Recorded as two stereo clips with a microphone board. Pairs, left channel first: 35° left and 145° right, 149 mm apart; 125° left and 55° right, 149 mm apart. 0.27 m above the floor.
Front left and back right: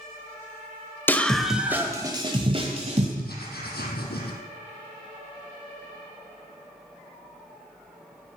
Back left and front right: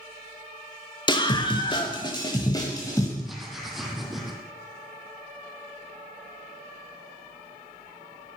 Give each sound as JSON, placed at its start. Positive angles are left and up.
{"t": 1.1, "sound": "a scream", "azimuth_deg": 100, "distance_m": 1.2}
{"t": 3.2, "sound": "writing", "azimuth_deg": 35, "distance_m": 3.0}